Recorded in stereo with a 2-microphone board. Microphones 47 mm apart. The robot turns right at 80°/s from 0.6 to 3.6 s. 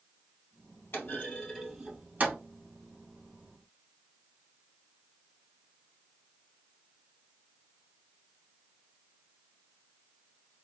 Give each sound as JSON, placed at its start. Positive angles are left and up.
{"t": 0.9, "sound": "a clunk", "side_deg": 55, "distance_m": 2.5}